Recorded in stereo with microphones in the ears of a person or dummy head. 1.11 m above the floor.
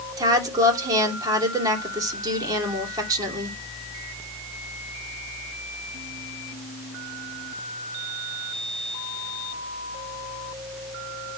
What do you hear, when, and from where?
0.2 s a woman speaking: 25° right (ahead or behind), 2.5 m